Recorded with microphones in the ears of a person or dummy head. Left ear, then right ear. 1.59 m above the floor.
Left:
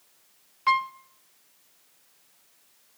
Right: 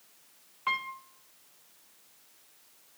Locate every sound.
0.7 s a piano: 20° left (ahead or behind), 0.6 m